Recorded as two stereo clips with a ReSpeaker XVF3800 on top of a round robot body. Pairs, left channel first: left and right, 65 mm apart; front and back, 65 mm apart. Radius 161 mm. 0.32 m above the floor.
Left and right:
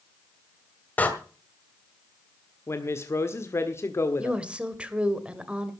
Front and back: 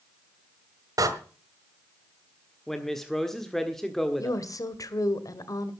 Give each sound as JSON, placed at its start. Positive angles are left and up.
{"t": 1.0, "sound": "a door slam", "azimuth_deg": 155, "distance_m": 2.0}
{"t": 2.7, "sound": "a woman speaking", "azimuth_deg": 80, "distance_m": 1.6}
{"t": 4.2, "sound": "a woman speaking", "azimuth_deg": -15, "distance_m": 2.0}